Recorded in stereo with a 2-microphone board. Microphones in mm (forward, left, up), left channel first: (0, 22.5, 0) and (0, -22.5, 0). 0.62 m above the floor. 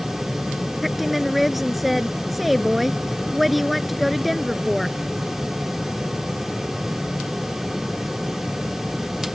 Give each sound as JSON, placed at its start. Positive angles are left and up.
{"t": 0.8, "sound": "a woman speaking", "side_deg": -5}